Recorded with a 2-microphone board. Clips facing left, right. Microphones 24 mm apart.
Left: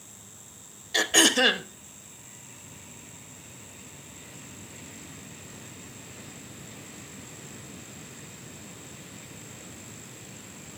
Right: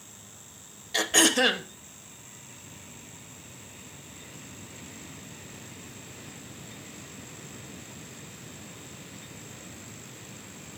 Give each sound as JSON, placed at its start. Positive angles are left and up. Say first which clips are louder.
{"t": 0.9, "sound": "throat clearing", "louder": "left 1 dB", "side_deg": 10, "distance_m": 1.0}